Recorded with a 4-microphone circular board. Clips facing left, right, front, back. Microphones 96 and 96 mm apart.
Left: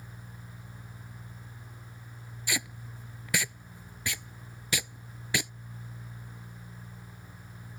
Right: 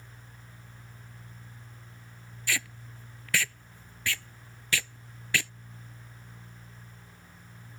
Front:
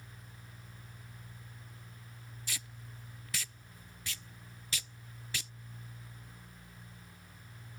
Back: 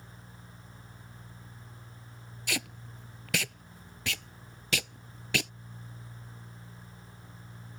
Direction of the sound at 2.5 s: 165° left.